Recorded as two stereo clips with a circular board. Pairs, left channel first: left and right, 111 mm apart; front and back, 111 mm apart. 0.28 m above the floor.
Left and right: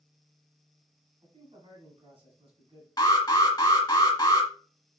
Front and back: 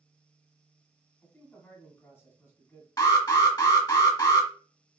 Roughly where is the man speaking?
Ahead right.